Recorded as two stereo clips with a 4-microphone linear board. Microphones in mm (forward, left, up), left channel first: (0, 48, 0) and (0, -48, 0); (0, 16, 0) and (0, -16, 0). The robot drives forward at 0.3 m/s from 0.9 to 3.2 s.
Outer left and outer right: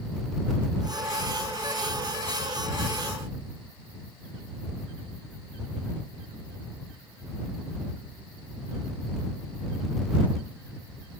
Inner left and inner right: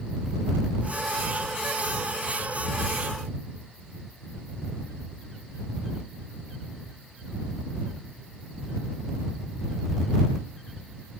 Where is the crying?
No crying in this recording.